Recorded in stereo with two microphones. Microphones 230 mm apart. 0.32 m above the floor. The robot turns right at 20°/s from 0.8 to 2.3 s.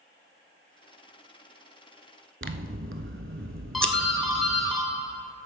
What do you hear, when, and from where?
2.4 s scissors: 60° right (ahead or behind), 0.7 m
3.7 s a doorbell: centre (ahead or behind), 3.5 m